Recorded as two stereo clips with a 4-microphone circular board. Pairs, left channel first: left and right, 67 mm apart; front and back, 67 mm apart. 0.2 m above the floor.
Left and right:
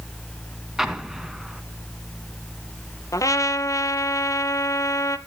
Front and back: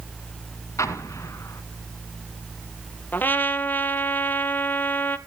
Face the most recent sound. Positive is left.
turn(degrees=60)